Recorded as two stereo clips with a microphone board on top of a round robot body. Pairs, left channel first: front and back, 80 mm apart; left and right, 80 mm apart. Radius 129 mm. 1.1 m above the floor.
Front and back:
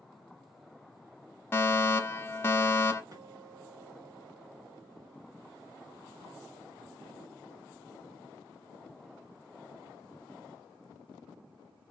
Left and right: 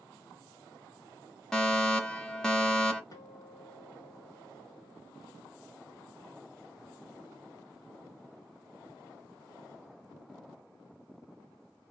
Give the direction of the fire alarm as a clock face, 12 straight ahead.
11 o'clock.